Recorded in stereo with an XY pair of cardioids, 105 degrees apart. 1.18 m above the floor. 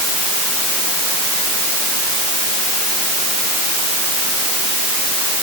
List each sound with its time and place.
Only background noise.